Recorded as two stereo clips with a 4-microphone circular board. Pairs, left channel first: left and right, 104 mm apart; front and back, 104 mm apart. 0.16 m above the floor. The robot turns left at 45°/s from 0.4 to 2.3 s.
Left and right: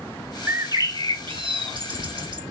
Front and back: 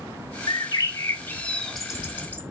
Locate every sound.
0.5 s a bird: 30° right, 0.8 m; by 2.5 s 110° right, 0.8 m